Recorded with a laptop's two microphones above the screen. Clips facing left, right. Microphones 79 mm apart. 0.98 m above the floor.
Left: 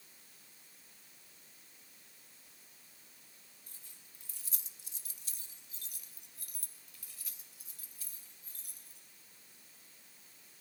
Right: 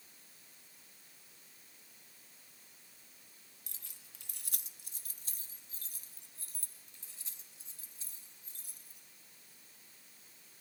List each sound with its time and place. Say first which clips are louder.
3.7 s keys jangling: right 1 dB; 80° right, 0.8 m; by 9.0 s 25° right (ahead or behind), 4.5 m